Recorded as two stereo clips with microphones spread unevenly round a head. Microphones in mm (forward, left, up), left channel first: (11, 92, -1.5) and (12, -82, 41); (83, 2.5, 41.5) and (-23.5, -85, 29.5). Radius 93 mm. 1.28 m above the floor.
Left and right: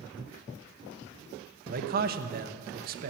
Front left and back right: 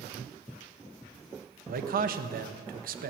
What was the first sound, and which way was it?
A man speaking, 135° right.